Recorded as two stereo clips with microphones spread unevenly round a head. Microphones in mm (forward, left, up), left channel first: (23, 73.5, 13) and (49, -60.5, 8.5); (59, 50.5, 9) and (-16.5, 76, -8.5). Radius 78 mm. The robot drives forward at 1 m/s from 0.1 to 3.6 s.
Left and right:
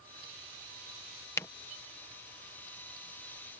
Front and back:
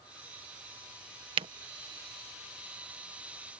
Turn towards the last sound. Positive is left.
turn(degrees=180)